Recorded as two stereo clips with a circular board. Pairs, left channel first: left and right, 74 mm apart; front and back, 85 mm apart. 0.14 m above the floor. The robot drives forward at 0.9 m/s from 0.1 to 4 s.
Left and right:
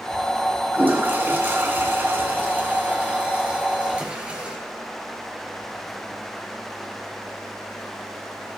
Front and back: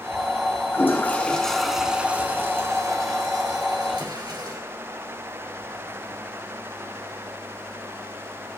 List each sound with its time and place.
0.7 s a toilet flushing: 40° right, 1.6 m; by 4.6 s 160° right, 2.5 m